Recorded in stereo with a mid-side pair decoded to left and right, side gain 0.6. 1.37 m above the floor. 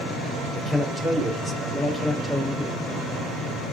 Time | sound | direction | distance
0.5 | a man speaking | 10° right | 5 m